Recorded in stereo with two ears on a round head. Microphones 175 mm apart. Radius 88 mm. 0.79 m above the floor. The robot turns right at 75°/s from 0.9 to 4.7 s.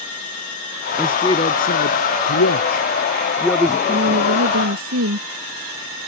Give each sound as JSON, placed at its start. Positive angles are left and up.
{"t": 1.0, "sound": "a man speaking", "azimuth_deg": -5}
{"t": 3.9, "sound": "a woman speaking", "azimuth_deg": -135}